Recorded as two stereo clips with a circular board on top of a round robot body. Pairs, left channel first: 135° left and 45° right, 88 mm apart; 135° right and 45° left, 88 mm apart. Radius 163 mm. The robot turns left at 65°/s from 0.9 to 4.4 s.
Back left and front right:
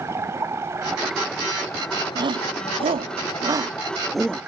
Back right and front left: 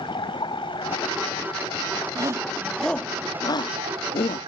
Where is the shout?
5° right; by 4.4 s 150° right.